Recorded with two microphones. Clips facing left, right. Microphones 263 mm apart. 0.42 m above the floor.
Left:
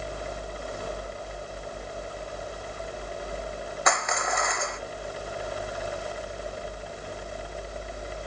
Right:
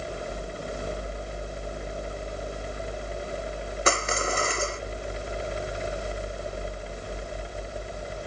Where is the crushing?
35° right (ahead or behind).